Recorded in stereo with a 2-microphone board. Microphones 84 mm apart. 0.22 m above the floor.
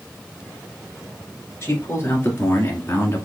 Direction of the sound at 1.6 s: 30° left (ahead or behind).